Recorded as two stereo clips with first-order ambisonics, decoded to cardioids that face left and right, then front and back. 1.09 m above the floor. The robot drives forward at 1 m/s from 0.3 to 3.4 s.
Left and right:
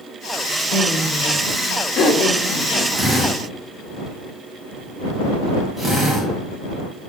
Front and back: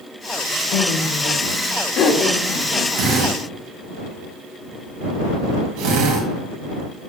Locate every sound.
0.7 s laughter: 25° left, 3 m; by 2.9 s 65° left, 1.6 m
3.0 s a drill: 170° right, 4.5 m